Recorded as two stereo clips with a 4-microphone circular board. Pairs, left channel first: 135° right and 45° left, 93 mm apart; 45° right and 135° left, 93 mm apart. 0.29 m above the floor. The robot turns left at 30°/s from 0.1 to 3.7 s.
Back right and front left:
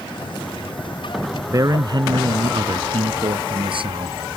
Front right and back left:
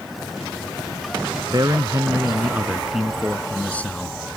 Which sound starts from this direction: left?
A man speaking, at 1.5 s.